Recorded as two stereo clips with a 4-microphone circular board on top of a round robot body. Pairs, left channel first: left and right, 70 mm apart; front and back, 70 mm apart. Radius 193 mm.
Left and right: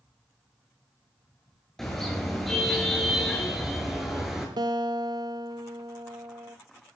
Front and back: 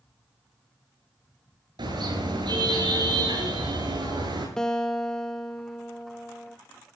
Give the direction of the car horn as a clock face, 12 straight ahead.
6 o'clock.